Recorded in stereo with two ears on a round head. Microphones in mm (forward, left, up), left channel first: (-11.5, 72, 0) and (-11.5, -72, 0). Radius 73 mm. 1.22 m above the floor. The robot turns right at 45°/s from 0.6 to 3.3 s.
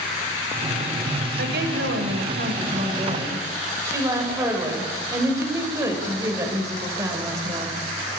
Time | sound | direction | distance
1.4 | a woman speaking | 105° right | 6.5 m